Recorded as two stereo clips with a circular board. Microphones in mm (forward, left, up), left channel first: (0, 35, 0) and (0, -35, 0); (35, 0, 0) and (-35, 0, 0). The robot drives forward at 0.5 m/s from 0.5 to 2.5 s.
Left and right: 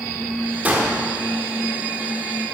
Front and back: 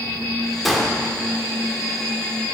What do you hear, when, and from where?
0.7 s a gunshot: 85° right, 0.9 m; by 1.0 s 115° right, 0.9 m